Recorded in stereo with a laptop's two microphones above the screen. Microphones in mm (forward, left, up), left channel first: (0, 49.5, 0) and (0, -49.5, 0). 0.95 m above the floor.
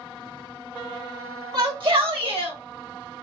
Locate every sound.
1.5 s a shout: 50° right (ahead or behind), 1.6 m; by 2.6 s 70° right (ahead or behind), 1.3 m